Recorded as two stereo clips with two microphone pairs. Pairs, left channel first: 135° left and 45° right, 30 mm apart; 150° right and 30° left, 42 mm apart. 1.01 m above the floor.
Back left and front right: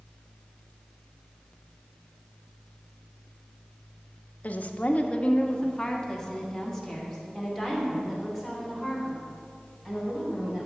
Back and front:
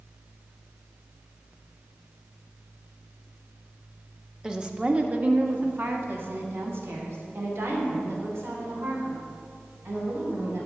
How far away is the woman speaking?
About 1.0 m.